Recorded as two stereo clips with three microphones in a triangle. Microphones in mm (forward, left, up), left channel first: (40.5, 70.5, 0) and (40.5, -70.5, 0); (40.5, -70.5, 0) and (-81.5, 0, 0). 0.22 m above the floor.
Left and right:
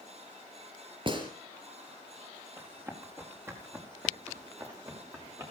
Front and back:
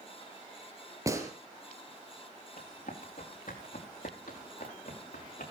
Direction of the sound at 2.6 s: 15° right.